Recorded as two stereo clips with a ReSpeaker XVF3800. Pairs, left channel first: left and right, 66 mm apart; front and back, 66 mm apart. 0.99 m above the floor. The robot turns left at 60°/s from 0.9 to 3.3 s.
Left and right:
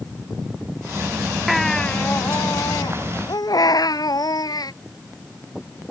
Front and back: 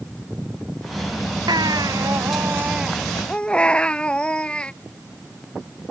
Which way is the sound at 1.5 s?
175° right.